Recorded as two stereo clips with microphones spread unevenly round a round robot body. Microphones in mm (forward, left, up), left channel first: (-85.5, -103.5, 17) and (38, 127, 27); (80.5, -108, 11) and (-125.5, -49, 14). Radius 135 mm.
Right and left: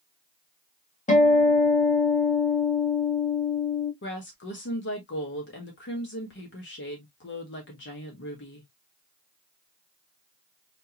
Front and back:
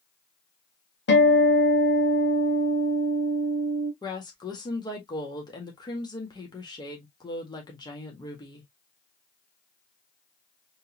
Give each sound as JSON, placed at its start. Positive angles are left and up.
{"t": 1.1, "sound": "a guitar", "azimuth_deg": -55, "distance_m": 1.9}
{"t": 4.0, "sound": "a woman speaking", "azimuth_deg": -85, "distance_m": 1.6}